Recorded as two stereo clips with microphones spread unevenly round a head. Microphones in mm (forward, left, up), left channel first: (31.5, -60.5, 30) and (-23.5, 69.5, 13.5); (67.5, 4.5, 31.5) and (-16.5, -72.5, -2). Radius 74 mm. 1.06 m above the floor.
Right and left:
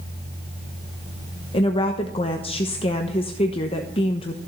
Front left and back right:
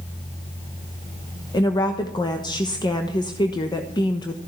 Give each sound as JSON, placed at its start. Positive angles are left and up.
{"t": 1.5, "sound": "a woman speaking", "azimuth_deg": -15, "distance_m": 1.2}